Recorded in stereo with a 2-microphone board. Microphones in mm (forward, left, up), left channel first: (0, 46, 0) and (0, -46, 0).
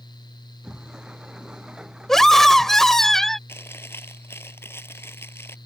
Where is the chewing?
25° left (ahead or behind).